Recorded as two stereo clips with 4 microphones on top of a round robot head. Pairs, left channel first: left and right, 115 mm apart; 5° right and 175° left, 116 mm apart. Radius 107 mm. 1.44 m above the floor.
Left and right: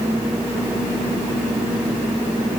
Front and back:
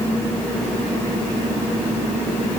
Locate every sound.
Only background noise.